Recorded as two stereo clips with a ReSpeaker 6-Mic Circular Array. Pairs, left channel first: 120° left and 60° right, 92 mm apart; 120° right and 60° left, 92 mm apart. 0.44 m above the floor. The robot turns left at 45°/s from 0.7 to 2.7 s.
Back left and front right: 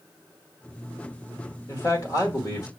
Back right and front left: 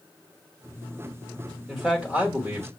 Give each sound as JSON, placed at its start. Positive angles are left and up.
{"t": 1.7, "sound": "a man speaking", "azimuth_deg": 145, "distance_m": 1.4}